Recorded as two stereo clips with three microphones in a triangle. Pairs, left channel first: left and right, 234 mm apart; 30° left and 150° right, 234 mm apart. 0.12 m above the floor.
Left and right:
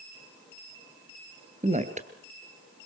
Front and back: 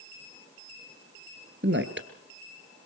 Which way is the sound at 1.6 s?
140° right.